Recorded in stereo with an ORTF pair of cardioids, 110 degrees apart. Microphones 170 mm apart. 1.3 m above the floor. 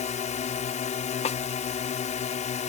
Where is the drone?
45° left.